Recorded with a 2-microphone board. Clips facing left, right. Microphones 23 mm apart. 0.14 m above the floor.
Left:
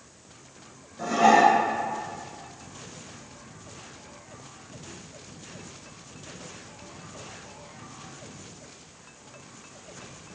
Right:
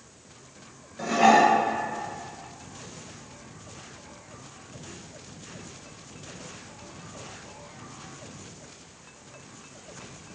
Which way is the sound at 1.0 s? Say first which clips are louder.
Even; 25° right (ahead or behind).